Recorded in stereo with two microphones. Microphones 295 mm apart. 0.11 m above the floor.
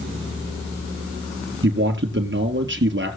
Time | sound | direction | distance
1.6 | a man speaking | 45° right (ahead or behind) | 2 m